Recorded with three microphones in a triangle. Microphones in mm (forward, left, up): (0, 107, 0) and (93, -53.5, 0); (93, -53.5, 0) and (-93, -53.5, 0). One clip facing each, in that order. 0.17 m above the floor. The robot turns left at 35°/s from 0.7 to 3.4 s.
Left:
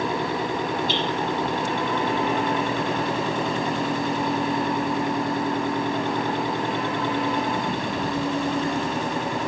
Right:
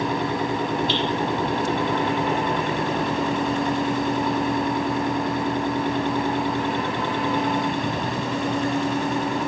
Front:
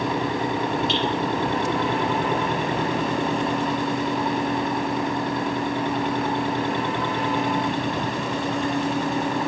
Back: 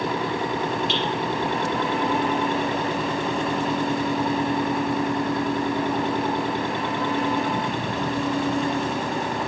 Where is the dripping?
90° left, 3 m; by 1.0 s 85° left, 3 m.